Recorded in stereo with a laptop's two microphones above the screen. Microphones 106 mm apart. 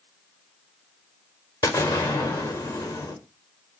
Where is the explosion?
25° left (ahead or behind), 3.5 m.